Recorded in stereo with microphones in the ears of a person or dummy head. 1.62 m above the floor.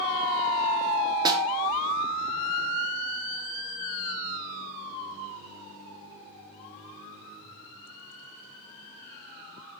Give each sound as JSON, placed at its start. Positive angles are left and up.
{"t": 1.2, "sound": "a snare drum", "side_deg": -25, "distance_m": 1.5}